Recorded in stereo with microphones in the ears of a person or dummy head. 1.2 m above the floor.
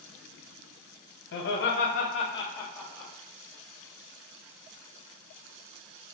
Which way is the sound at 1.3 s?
60° left (ahead or behind).